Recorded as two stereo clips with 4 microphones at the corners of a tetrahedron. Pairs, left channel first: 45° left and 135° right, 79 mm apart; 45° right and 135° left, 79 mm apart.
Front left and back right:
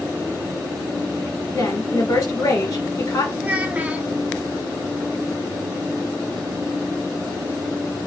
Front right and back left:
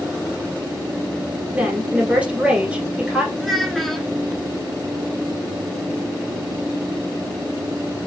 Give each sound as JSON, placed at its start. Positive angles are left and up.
{"t": 1.5, "sound": "a woman speaking", "azimuth_deg": 65, "distance_m": 1.4}
{"t": 3.4, "sound": "a child speaking", "azimuth_deg": -130, "distance_m": 0.6}